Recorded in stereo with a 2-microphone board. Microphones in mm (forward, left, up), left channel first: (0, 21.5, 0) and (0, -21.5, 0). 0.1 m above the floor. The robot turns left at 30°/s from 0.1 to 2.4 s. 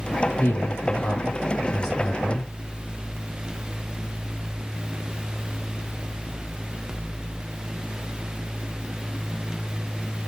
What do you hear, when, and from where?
0.4 s a man speaking: 70° left, 4.5 m; by 2.5 s 10° left, 4.5 m